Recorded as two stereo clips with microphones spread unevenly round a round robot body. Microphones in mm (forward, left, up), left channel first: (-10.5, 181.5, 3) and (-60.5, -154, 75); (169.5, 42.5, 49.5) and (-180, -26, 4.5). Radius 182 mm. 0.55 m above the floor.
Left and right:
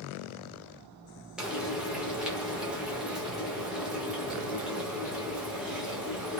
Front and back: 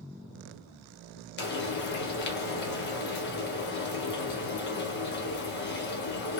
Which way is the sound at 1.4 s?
20° left.